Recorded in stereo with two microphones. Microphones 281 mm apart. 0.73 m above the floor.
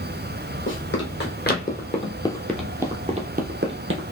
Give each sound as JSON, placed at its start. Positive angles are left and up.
{"t": 0.7, "sound": "running footsteps", "side_deg": 45, "distance_m": 1.5}